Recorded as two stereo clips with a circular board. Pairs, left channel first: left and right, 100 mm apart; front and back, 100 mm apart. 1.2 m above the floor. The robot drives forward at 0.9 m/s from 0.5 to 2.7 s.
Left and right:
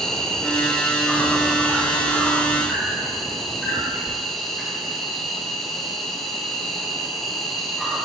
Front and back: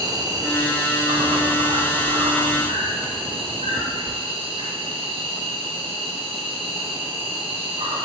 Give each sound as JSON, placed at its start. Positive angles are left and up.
{"t": 0.0, "sound": "an insect", "azimuth_deg": 170, "distance_m": 1.0}